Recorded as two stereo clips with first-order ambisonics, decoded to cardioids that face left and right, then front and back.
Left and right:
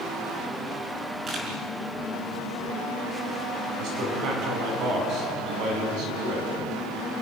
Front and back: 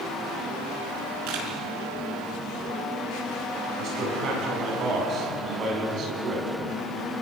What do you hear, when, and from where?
1.3 s a camera shutter: 155° right, 5 m
3.8 s a man speaking: 130° right, 8 m